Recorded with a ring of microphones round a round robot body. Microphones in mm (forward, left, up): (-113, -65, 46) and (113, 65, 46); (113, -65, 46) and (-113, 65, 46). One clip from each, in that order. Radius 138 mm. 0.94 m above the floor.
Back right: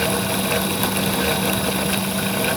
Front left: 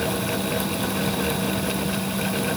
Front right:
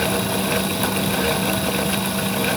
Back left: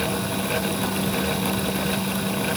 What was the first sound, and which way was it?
Only background noise.